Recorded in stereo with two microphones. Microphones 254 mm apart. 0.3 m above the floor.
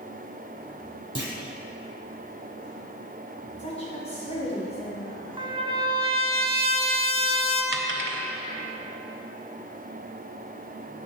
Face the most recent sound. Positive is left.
turn(degrees=-50)  # may be behind; listen again after turning